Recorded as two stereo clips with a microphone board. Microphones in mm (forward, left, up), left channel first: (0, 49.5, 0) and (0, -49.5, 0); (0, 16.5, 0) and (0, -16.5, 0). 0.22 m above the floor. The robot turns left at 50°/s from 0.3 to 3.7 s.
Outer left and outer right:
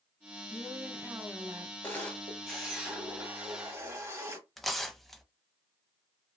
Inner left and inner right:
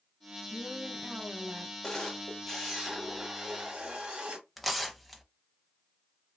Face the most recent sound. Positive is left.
turn(degrees=0)  # may be behind; listen again after turning